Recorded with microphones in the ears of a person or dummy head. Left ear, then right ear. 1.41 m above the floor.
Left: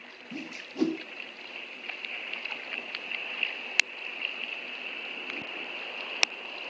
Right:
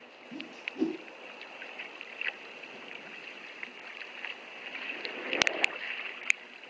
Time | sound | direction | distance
0.3 | a whoosh | 30° left (ahead or behind) | 0.9 m